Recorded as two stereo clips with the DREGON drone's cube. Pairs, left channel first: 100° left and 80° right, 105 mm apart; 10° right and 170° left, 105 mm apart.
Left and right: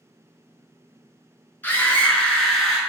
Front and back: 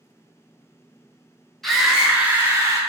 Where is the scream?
70° left, 1.0 m; by 2.8 s 170° right, 1.1 m.